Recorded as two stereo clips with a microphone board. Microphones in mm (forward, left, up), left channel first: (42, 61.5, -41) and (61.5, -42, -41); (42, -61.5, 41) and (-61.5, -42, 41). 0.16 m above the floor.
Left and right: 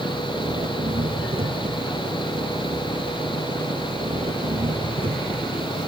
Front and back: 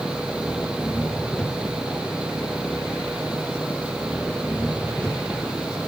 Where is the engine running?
95° right.